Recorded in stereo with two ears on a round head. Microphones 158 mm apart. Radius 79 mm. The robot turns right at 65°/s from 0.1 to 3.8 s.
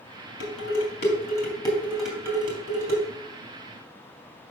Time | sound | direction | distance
0.4 | dishes clattering | 75° left (ahead or behind) | 3.5 m